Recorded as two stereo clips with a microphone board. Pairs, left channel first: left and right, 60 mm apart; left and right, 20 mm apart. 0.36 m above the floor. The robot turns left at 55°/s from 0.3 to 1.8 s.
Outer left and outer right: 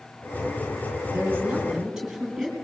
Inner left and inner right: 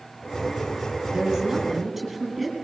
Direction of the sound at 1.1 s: 145° right.